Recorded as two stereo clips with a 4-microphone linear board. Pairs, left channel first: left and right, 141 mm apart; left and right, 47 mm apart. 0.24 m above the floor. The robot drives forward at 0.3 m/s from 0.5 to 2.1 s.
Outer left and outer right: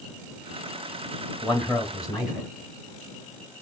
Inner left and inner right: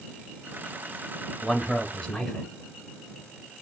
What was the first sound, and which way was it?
A man speaking, 5° right (ahead or behind).